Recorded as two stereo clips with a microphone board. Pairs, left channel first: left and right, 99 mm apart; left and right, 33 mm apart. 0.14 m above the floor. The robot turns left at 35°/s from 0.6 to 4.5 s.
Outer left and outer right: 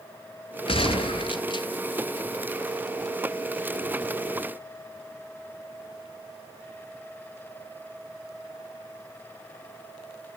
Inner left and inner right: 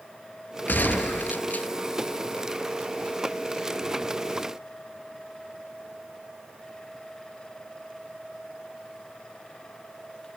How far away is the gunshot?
About 0.6 m.